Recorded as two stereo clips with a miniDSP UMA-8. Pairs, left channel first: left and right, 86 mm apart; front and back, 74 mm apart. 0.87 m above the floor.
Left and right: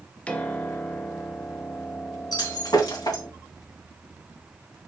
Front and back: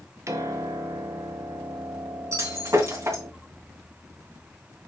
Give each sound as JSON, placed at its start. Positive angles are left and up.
{"t": 0.3, "sound": "a piano", "azimuth_deg": 160, "distance_m": 1.1}
{"t": 2.3, "sound": "breaking glass", "azimuth_deg": 130, "distance_m": 3.0}